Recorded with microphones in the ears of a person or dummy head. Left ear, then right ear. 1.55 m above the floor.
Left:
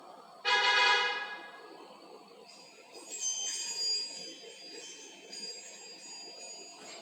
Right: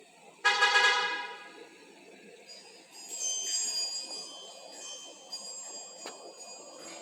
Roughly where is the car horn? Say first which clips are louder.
Right 2 dB; right.